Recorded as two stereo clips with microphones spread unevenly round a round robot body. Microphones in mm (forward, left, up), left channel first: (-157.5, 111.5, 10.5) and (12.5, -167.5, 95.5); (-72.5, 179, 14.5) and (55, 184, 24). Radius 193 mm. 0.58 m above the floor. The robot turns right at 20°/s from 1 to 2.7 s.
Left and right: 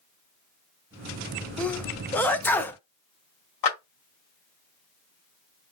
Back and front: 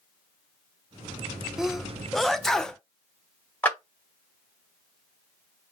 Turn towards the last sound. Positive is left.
turn(degrees=105)